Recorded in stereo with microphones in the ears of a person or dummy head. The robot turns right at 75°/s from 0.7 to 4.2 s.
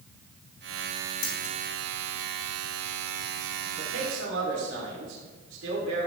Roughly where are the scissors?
Left.